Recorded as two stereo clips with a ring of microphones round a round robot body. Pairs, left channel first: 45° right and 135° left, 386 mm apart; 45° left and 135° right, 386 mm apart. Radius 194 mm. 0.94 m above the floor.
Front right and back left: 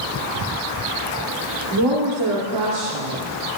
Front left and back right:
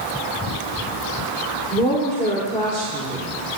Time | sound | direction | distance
1.7 | a woman speaking | 120° left | 2.5 m